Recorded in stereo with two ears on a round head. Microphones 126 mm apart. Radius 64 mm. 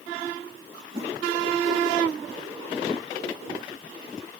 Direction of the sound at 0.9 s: 50° right (ahead or behind).